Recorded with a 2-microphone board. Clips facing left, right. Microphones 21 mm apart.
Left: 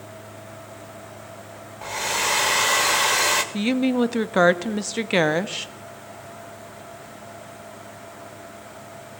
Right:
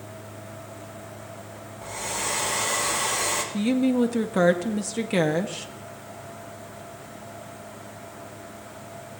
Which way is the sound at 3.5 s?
40° left (ahead or behind).